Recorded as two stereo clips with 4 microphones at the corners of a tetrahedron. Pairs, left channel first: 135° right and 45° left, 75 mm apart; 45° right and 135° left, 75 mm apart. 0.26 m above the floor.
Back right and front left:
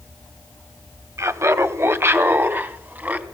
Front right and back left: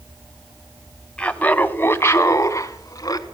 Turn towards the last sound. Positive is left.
turn(degrees=-20)